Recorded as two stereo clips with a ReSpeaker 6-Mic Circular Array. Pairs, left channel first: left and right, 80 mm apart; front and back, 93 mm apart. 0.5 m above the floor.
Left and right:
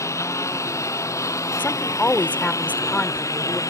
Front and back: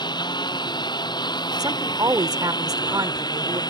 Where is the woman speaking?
155° left.